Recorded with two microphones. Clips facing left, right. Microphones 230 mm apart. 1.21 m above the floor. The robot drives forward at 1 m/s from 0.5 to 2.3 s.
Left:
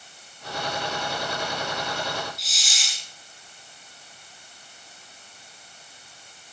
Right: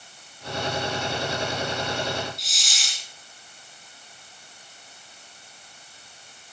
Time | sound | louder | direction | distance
2.4 | a hiss | even | centre (ahead or behind) | 2 m